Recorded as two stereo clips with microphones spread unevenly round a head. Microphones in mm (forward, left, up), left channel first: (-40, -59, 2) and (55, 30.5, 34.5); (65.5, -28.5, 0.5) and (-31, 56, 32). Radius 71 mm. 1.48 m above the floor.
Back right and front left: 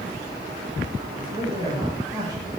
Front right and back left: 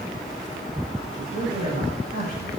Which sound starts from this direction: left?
A man speaking, at 1.2 s.